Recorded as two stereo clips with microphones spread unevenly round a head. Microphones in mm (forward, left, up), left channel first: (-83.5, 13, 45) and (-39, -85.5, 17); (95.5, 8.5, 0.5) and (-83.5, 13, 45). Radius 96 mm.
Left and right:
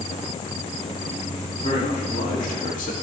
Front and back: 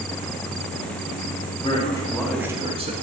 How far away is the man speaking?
About 1.7 m.